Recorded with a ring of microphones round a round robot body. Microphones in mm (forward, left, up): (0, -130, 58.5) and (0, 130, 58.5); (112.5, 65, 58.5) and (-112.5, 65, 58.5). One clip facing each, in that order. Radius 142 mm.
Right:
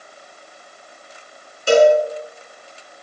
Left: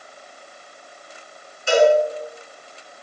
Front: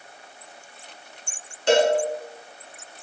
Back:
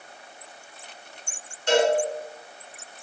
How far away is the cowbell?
About 4.5 m.